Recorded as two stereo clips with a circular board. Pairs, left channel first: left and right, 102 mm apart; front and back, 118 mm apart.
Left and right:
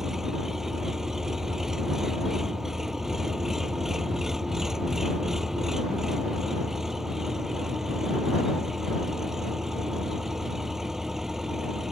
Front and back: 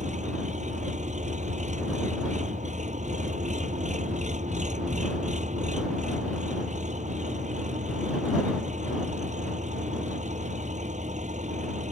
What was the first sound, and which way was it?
An engine running, 175° right.